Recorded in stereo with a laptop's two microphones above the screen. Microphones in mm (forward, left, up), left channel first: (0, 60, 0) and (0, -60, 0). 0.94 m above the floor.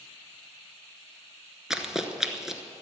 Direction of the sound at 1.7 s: 5° right (ahead or behind).